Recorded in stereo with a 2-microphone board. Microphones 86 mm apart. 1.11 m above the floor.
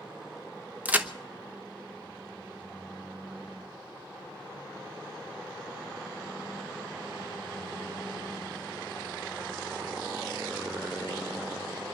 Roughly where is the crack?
Centre.